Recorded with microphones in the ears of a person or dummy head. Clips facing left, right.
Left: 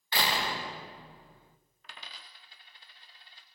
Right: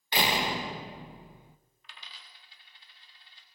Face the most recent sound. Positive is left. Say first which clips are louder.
# left 4 dB
turn(degrees=35)  # may be behind; listen again after turning